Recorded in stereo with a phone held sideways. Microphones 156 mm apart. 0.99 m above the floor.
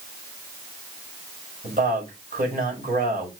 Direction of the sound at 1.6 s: 60° right (ahead or behind).